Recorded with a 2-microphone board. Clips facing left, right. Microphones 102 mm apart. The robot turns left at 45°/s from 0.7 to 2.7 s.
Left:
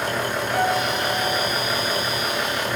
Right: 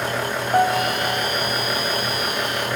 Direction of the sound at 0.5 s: 45° right.